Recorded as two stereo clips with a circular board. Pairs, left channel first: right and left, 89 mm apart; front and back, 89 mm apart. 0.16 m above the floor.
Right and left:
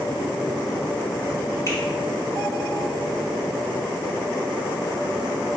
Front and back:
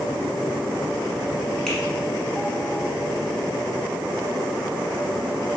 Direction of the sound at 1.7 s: 80° right.